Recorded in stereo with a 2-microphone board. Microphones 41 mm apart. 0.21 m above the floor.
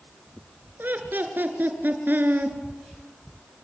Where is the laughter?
55° right (ahead or behind), 3 m.